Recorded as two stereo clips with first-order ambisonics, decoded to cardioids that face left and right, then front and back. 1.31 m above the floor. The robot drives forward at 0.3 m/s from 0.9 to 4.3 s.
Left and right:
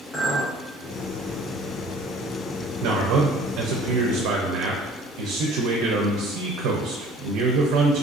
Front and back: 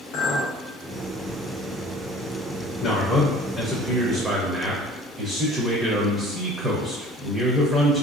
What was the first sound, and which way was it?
A clink, 15° left.